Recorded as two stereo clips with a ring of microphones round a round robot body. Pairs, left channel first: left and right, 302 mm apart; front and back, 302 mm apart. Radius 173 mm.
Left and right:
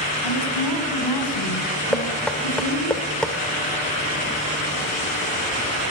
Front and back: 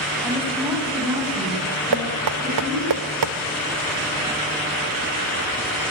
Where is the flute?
I don't hear a flute.